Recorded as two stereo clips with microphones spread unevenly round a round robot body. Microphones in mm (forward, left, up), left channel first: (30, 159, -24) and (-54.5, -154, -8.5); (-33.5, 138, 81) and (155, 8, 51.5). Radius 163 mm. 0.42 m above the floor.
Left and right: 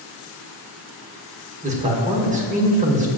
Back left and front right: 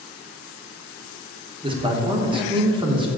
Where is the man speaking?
55° right, 1.4 m.